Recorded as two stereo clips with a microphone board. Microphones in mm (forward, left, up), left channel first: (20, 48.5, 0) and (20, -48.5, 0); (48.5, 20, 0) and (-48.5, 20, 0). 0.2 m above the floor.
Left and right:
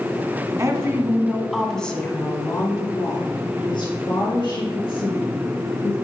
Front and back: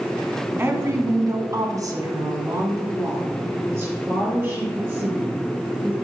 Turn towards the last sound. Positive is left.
turn(degrees=110)